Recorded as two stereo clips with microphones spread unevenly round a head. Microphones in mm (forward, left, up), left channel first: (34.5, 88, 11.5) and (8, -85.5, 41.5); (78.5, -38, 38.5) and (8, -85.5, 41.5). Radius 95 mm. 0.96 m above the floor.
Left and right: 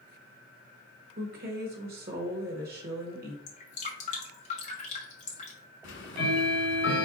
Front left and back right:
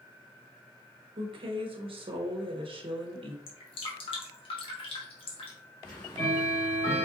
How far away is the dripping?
About 1.3 m.